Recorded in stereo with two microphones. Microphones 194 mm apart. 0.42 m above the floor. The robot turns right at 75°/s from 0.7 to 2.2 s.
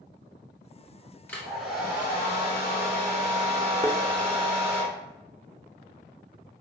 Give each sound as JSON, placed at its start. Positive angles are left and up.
{"t": 1.3, "sound": "a hair dryer", "side_deg": 15, "distance_m": 1.4}
{"t": 3.8, "sound": "a thud", "side_deg": 25, "distance_m": 0.9}